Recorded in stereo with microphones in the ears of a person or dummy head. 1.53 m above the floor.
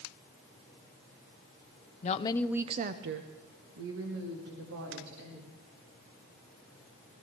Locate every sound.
2.0 s a woman speaking: 40° left (ahead or behind), 0.7 m; by 5.5 s 85° right, 3.5 m